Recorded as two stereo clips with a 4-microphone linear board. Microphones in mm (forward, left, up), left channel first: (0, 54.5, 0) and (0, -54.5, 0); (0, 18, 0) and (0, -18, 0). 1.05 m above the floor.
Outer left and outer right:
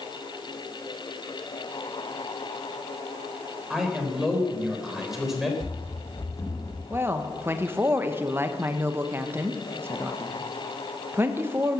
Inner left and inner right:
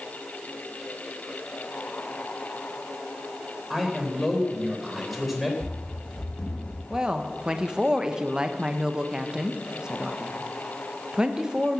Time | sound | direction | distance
3.7 | a man speaking | 5° right (ahead or behind) | 3.5 m
5.6 | running footsteps | 15° left (ahead or behind) | 3.5 m
6.9 | a woman speaking | 20° right (ahead or behind) | 1.0 m